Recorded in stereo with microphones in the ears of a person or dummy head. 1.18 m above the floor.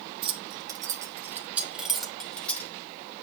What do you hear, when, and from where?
0.2 s keys jangling: 25° right (ahead or behind), 2.5 m; by 2.7 s 15° left (ahead or behind), 3 m